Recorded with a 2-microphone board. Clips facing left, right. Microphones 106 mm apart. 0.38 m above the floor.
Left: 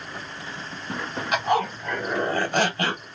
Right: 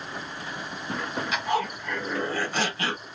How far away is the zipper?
About 2 m.